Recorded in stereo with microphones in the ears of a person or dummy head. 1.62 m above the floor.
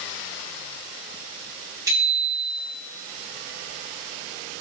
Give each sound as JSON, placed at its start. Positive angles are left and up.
{"t": 1.9, "sound": "a bicycle bell", "side_deg": -10, "distance_m": 6.0}